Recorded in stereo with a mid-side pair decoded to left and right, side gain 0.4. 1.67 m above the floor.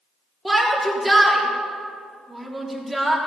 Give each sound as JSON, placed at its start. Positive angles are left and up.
{"t": 0.5, "sound": "a shout", "azimuth_deg": -20, "distance_m": 3.5}